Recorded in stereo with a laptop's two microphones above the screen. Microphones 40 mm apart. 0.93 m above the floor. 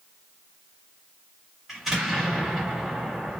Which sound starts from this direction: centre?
An explosion, at 1.7 s.